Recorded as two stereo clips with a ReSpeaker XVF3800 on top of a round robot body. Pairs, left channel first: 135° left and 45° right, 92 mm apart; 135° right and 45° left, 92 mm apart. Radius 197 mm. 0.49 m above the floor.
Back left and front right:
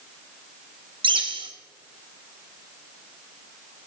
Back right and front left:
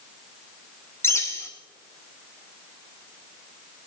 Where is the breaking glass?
No breaking glass in this recording.